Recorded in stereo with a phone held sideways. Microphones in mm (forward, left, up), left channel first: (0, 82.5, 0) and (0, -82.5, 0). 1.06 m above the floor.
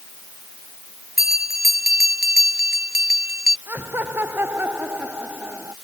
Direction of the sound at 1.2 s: 80° right.